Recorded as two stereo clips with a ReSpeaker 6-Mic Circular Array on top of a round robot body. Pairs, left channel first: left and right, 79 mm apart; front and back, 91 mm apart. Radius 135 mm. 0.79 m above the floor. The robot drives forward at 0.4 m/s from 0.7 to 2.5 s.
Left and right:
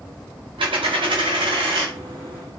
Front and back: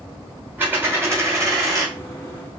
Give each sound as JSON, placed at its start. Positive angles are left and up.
{"t": 0.6, "sound": "a dropped coin", "azimuth_deg": -110, "distance_m": 1.6}